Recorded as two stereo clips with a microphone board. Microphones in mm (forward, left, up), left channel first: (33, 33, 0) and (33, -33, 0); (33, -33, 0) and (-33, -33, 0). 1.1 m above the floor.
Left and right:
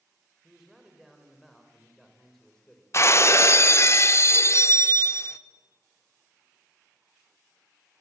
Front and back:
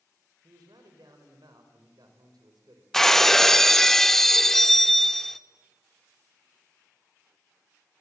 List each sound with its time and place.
0.4 s a man speaking: 175° right, 5 m; by 2.8 s 170° left, 4 m
2.9 s breaking glass: 80° left, 0.8 m